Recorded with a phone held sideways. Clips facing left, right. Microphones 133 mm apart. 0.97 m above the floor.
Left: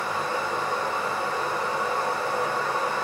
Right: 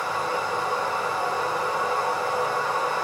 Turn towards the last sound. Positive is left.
turn(degrees=-15)  # may be behind; listen again after turning